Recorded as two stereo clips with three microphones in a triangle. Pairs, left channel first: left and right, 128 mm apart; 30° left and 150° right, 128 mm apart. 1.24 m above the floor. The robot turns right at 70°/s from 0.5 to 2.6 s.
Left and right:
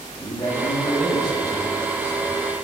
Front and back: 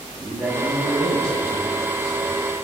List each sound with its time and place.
0.1 s a man speaking: 140° left, 1.7 m; by 2.4 s 85° right, 1.7 m